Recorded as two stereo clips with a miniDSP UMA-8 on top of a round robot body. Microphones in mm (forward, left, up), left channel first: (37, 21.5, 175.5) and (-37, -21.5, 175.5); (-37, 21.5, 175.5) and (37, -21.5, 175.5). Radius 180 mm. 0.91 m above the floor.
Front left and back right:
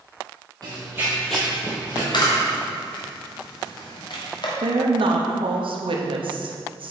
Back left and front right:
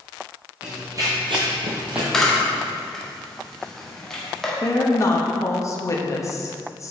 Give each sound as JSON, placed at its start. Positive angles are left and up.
{"t": 0.6, "sound": "running footsteps", "azimuth_deg": -105, "distance_m": 1.6}
{"t": 2.1, "sound": "a camera shutter", "azimuth_deg": 65, "distance_m": 1.7}
{"t": 4.6, "sound": "a woman speaking", "azimuth_deg": -155, "distance_m": 1.3}